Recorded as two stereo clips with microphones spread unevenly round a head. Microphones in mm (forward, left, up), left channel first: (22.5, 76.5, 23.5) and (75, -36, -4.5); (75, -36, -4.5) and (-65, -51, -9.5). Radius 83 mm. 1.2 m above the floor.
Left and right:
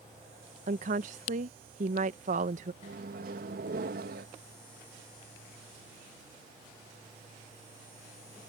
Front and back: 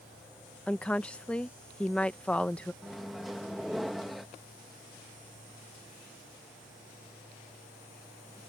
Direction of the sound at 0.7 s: 75° right.